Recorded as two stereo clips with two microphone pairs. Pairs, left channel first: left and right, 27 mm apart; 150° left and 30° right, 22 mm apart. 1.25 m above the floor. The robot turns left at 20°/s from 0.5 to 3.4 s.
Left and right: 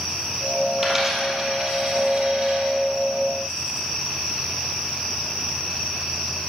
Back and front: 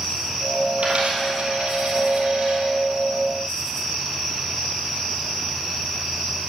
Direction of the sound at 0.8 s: 5° right.